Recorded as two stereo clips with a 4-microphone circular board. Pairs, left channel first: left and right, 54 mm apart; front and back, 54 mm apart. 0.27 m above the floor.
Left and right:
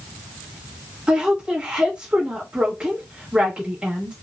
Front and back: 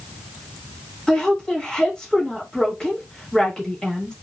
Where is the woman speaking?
55° right, 1.3 m.